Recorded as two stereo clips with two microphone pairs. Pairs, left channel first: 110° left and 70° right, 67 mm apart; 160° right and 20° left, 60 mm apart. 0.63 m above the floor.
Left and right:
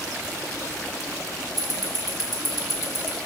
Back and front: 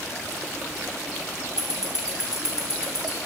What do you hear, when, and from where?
1.6 s ticking: 60° right, 1.1 m